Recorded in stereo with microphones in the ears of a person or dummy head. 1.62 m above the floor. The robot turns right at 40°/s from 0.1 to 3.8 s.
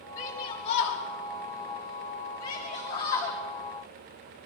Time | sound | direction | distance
0.2 | a shout | 15° left (ahead or behind) | 3 m